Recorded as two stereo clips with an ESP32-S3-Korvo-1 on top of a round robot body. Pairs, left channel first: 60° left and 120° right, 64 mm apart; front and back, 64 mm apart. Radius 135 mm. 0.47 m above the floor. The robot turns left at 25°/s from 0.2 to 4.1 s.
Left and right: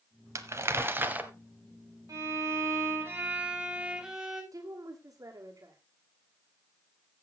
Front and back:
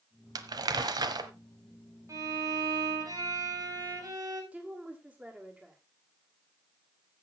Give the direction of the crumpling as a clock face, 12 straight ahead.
5 o'clock.